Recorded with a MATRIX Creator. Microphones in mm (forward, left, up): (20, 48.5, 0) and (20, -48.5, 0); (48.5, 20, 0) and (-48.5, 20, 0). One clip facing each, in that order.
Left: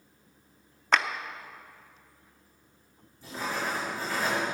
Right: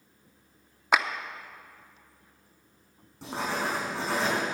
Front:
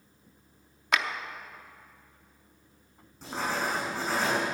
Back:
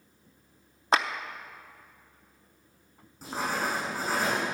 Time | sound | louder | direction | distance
0.9 | a clap | right 1 dB, back 4 dB | 160° right | 0.5 m
3.2 | writing | right 2 dB, even | 90° right | 5 m